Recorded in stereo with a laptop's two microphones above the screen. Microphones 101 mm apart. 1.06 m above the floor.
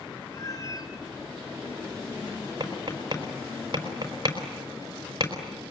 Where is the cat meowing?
35° left (ahead or behind), 2.5 m.